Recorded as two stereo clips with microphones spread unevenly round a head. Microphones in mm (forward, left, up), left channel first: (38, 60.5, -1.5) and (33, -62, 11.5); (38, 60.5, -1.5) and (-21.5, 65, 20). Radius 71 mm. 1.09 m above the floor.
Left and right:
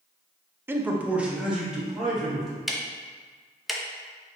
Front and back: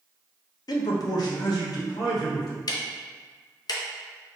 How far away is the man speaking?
About 0.5 m.